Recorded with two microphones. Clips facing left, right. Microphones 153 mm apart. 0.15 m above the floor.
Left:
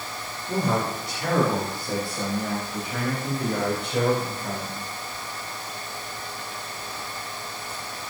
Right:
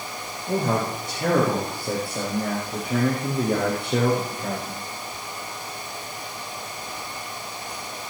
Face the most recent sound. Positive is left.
turn(degrees=-65)  # may be behind; listen again after turning